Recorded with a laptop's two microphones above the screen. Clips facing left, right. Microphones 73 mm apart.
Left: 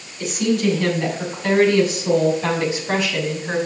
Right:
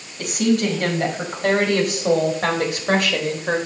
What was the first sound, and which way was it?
A woman speaking, 55° right (ahead or behind).